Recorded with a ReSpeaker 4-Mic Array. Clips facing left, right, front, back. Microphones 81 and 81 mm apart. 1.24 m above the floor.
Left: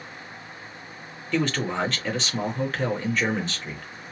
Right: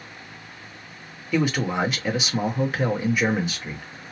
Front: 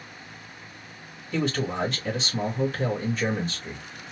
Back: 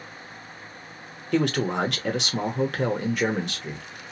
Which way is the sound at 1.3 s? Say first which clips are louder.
Right 2 dB, back 4 dB; 170° right.